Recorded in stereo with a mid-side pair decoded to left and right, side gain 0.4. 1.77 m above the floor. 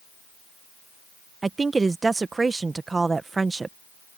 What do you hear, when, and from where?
1.4 s a woman speaking: 30° right